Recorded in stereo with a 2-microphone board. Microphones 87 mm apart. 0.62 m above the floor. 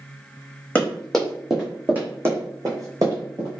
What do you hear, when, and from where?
0.8 s running footsteps: 15° left (ahead or behind), 1.2 m; by 3.5 s 50° right (ahead or behind), 1.7 m